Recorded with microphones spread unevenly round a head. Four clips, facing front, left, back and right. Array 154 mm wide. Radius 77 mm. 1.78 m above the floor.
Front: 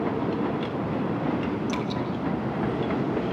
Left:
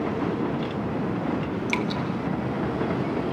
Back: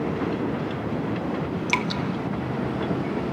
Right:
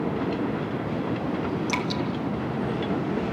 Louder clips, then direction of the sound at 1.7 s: Even, back 2 dB; 170° left.